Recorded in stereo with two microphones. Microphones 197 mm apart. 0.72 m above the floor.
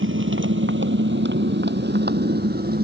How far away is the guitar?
I don't hear a guitar.